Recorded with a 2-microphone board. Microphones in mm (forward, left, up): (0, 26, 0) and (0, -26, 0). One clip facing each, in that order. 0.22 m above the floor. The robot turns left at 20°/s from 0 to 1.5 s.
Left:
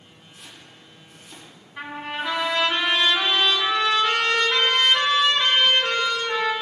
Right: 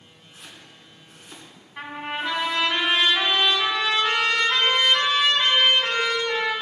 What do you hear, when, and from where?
0.3 s chopping: 60° right (ahead or behind), 2.5 m
1.8 s a trumpet: 20° right (ahead or behind), 1.8 m